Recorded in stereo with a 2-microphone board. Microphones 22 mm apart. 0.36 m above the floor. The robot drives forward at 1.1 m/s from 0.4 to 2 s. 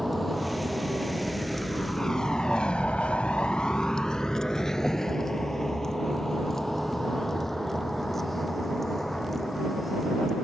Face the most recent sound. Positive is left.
turn(degrees=10)  # may be behind; listen again after turning